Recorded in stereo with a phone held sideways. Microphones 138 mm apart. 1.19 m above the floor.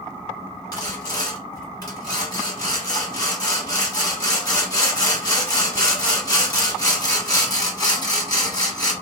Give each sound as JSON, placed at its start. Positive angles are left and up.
{"t": 0.7, "sound": "sawing", "side_deg": 25, "distance_m": 1.2}